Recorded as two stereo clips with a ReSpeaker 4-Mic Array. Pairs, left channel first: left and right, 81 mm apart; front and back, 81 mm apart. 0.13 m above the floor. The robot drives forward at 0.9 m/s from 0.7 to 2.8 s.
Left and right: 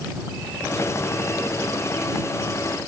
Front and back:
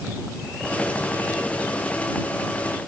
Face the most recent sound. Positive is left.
No sound to turn to.